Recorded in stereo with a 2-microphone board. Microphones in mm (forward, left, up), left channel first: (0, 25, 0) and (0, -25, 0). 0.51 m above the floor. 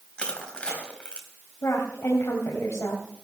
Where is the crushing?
20° left (ahead or behind), 3 m.